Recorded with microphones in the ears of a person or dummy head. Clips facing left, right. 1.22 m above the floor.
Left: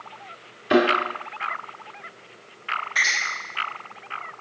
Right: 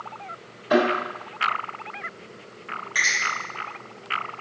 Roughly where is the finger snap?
Right.